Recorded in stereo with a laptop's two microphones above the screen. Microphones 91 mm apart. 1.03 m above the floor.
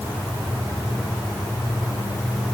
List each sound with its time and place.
Only background noise.